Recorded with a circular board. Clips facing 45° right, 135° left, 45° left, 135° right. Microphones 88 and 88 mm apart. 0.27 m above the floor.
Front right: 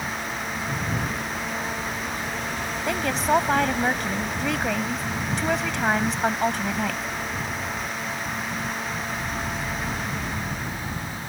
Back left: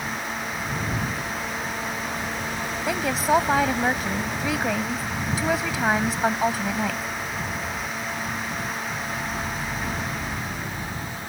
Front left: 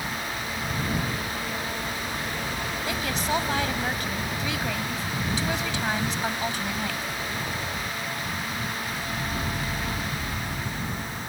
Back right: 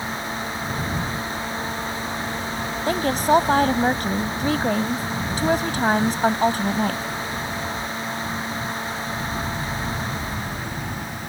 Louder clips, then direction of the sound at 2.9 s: Back left 1 dB, back right 10 dB; 140° right.